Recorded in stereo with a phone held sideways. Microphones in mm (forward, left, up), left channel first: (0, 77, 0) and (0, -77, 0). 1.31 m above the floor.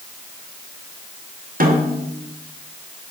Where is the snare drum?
65° right (ahead or behind), 2.5 m.